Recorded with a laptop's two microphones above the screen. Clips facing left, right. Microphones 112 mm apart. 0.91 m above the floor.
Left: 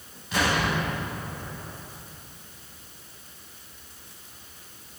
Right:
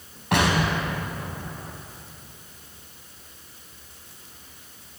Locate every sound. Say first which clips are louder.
0.3 s an explosion: right 3 dB; 70° right (ahead or behind), 6 m